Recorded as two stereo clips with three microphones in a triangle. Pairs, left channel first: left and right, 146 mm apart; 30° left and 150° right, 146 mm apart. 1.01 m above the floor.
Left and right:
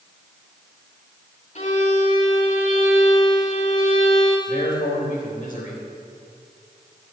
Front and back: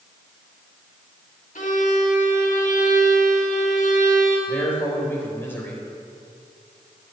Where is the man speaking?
105° left, 4 m.